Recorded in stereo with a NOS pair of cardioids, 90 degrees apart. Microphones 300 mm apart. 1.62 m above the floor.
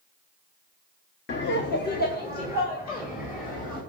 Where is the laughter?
40° left, 0.9 m; by 3.8 s 30° left, 4 m.